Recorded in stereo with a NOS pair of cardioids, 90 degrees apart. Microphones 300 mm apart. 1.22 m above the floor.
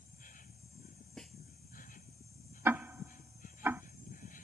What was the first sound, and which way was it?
An insect, 25° left.